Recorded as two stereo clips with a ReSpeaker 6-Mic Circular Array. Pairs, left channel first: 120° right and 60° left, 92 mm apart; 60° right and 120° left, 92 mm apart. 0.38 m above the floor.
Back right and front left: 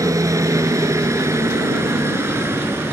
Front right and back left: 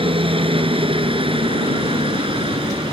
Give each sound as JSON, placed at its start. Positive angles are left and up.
{"t": 0.0, "sound": "a helicopter", "azimuth_deg": 110}